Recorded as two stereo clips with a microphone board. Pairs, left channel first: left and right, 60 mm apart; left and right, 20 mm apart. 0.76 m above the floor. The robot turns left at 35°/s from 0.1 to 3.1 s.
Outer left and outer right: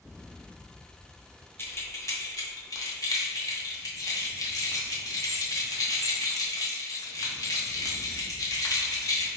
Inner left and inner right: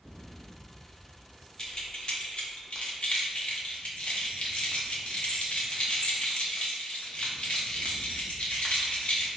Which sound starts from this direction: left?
Keys jangling, at 1.6 s.